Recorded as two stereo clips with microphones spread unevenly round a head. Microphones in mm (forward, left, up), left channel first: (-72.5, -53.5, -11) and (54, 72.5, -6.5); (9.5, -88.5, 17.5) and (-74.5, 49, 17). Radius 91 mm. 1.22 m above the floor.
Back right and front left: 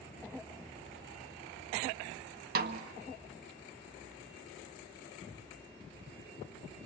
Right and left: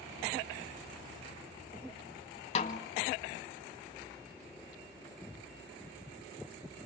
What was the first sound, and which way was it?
A snare drum, straight ahead.